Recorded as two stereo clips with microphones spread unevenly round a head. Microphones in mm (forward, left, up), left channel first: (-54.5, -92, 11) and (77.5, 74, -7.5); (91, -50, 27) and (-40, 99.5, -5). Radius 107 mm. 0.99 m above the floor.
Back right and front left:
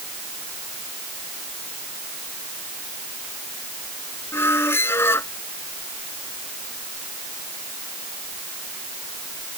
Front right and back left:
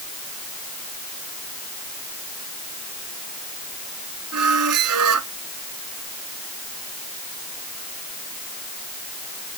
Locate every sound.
4.3 s a squeak: 150° left